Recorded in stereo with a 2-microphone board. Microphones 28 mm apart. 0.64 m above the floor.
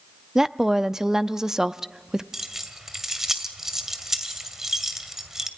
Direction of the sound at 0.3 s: 20° right (ahead or behind).